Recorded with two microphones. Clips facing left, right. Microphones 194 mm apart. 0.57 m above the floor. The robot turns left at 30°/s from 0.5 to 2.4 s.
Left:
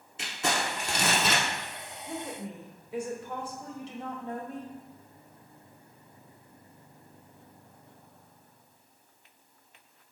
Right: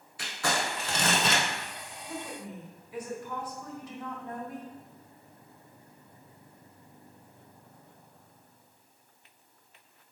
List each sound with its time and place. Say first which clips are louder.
0.2 s crumpling: even; 25° left (ahead or behind), 0.8 m; by 1.4 s centre (ahead or behind), 0.8 m
2.1 s a woman speaking: left 2 dB; 30° left (ahead or behind), 0.7 m; by 4.7 s 25° left (ahead or behind), 0.7 m